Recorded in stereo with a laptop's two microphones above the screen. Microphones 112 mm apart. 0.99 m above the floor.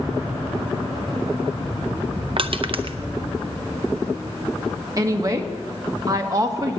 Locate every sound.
2.4 s crushing: 55° right (ahead or behind), 0.6 m
5.0 s a woman speaking: 30° right (ahead or behind), 1.3 m